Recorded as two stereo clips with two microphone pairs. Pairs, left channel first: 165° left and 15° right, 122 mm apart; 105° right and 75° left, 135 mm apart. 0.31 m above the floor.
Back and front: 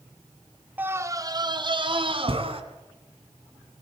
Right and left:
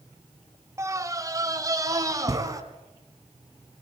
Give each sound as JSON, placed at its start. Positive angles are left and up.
{"t": 0.8, "sound": "a scream", "azimuth_deg": 45, "distance_m": 1.6}